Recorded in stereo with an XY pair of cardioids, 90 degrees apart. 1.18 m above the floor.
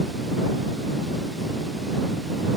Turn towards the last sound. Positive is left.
No sound to turn to.